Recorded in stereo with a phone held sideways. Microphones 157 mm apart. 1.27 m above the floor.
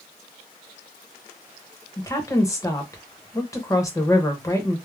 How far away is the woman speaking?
About 0.8 m.